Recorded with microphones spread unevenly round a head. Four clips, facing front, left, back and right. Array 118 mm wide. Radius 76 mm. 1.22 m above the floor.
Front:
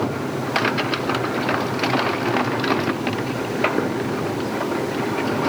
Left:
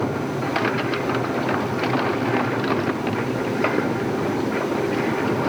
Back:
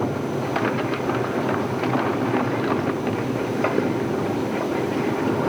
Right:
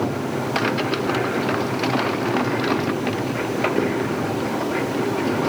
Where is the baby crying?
No baby crying in this recording.